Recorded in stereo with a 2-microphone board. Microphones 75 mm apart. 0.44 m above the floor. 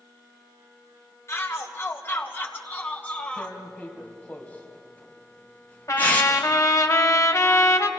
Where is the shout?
35° left (ahead or behind), 2.5 m; by 3.6 s 15° left (ahead or behind), 2 m.